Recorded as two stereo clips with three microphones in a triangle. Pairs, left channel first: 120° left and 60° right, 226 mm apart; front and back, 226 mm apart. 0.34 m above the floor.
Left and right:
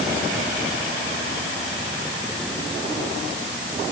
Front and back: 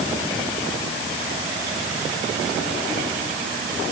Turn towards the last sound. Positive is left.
No sound to turn to.